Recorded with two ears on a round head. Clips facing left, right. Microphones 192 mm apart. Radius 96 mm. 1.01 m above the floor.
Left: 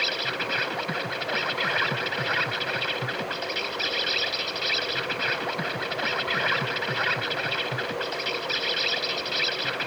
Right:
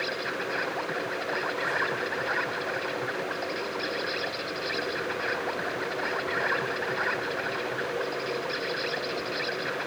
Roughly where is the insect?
Left.